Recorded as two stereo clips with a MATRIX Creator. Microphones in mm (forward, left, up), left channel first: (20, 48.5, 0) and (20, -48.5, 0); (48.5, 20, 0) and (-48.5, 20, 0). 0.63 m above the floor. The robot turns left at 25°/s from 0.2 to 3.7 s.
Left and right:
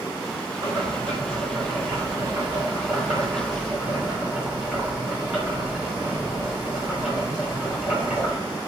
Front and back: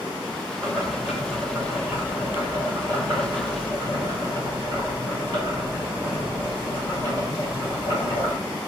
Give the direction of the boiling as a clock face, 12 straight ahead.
3 o'clock.